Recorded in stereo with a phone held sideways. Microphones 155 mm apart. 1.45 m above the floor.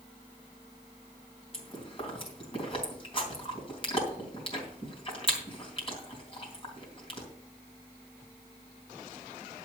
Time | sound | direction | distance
1.5 | chewing | 35° left (ahead or behind) | 3.5 m